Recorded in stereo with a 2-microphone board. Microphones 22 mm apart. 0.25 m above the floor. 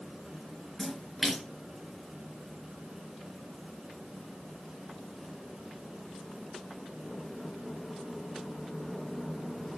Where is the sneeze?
I don't hear a sneeze.